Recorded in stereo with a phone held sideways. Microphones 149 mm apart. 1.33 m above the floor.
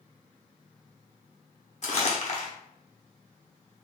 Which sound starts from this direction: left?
Crumpling, at 1.8 s.